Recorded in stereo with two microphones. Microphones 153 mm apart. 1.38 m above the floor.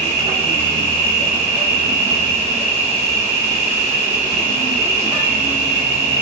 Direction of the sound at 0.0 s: 45° right (ahead or behind).